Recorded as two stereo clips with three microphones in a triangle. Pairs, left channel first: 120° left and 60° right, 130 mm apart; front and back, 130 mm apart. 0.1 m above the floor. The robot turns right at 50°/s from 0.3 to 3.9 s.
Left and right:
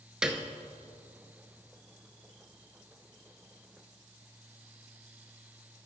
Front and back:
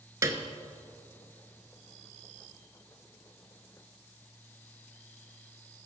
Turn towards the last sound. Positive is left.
turn(degrees=40)